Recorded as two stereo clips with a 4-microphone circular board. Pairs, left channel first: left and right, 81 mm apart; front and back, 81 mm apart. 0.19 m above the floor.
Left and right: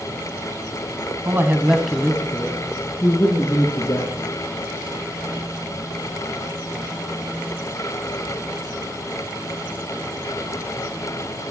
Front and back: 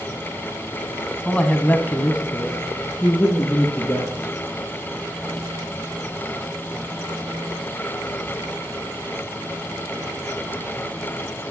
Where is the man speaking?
65° right, 1.3 m; by 4.0 s 65° left, 3 m.